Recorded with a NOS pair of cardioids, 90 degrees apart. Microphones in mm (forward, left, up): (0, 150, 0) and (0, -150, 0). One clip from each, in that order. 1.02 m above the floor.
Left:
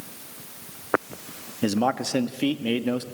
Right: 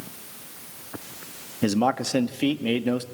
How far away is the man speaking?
About 1.5 m.